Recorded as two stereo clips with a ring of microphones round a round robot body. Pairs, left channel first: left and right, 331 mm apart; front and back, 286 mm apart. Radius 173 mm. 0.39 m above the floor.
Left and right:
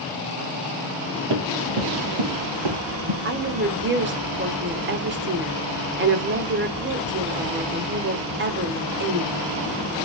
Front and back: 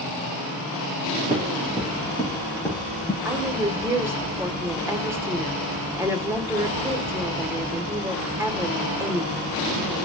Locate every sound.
1.3 s running footsteps: 95° right, 5 m; by 3.1 s 85° right, 5 m
3.2 s a woman speaking: 105° right, 1.3 m